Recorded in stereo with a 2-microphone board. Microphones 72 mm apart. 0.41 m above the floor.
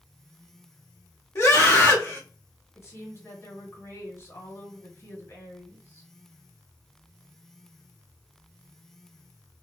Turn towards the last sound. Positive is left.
turn(degrees=45)  # may be behind; listen again after turning